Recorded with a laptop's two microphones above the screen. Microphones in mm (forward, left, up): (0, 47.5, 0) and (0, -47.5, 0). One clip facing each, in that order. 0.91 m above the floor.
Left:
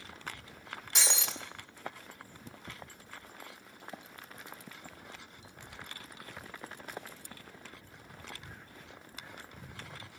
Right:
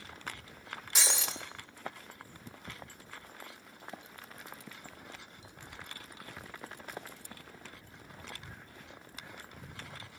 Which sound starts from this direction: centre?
Breaking glass, at 0.9 s.